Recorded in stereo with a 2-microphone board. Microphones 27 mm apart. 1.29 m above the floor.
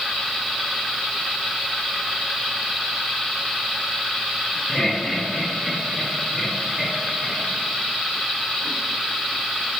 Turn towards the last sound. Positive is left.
turn(degrees=-5)  # may be behind; listen again after turning